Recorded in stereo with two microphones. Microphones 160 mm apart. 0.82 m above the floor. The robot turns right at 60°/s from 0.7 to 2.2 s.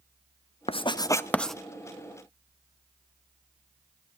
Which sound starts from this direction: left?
Writing, at 0.7 s.